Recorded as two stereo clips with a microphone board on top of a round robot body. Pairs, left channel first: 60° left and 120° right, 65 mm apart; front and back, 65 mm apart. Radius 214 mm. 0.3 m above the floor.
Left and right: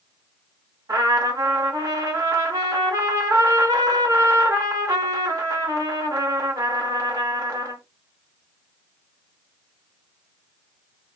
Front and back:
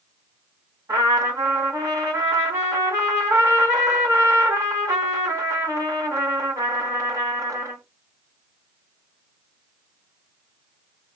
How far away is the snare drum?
No snare drum in this recording.